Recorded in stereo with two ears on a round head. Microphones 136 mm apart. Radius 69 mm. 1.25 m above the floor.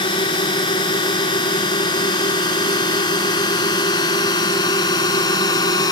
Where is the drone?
30° left (ahead or behind); by 5.9 s 25° left (ahead or behind).